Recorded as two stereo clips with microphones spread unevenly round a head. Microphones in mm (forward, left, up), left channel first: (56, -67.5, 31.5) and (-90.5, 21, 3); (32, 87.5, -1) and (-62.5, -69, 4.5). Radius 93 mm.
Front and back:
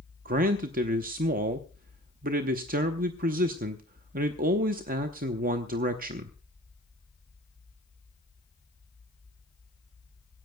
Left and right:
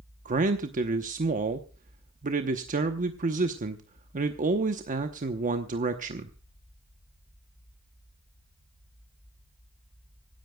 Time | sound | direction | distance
0.2 | a man speaking | 170° right | 0.9 m